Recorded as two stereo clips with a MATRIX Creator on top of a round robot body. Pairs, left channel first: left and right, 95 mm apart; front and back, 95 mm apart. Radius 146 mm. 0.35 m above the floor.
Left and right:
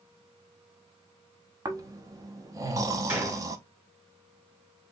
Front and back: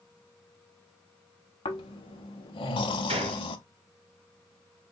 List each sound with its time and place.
1.6 s snoring: 35° right, 0.5 m
3.1 s a gunshot: 160° right, 0.8 m